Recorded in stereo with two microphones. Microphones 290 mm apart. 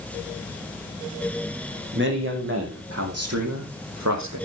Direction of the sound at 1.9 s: 40° right (ahead or behind).